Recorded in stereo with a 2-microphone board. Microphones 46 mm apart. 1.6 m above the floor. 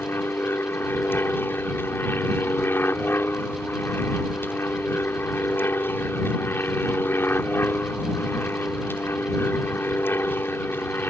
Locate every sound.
0.0 s an aircraft: 50° left (ahead or behind)